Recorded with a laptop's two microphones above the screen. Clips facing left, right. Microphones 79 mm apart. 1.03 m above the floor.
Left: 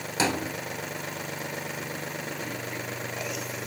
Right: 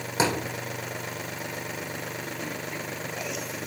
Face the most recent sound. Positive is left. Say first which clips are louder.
# right 1 dB
turn(degrees=-20)  # may be behind; listen again after turning